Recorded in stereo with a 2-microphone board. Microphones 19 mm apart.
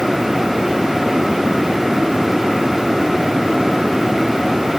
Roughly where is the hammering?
No hammering in this recording.